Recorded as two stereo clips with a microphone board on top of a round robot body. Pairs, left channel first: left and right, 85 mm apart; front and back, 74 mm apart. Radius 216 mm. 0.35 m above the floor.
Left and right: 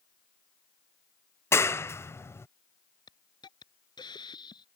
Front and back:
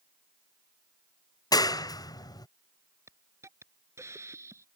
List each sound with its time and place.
1.5 s a clap: 30° left
3.1 s a hiss: 125° left